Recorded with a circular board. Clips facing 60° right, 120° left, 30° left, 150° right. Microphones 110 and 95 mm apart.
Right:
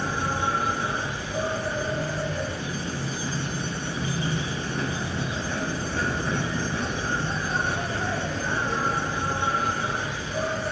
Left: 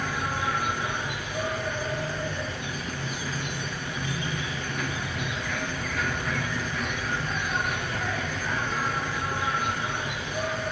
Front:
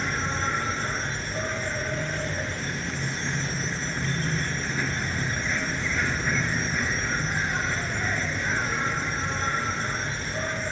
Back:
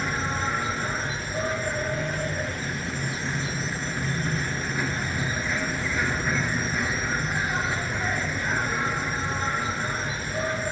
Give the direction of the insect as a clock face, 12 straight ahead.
2 o'clock.